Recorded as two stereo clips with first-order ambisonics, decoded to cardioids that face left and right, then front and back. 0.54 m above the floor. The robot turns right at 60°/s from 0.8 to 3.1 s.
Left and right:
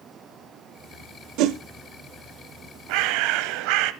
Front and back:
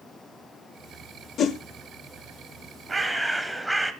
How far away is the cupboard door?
No cupboard door in this recording.